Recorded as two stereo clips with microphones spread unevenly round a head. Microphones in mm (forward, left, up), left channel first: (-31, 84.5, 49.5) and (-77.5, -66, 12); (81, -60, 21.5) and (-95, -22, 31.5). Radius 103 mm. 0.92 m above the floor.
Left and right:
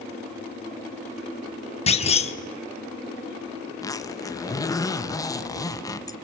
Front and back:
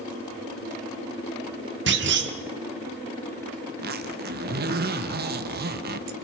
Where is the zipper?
150° left, 1.3 m.